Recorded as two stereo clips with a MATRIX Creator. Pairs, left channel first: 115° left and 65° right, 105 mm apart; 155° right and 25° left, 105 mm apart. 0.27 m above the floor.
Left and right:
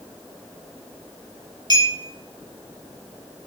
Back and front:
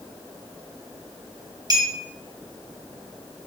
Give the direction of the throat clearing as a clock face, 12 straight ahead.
I don't hear throat clearing.